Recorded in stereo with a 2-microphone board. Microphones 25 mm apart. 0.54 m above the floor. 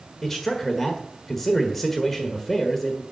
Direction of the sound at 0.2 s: 10° left (ahead or behind).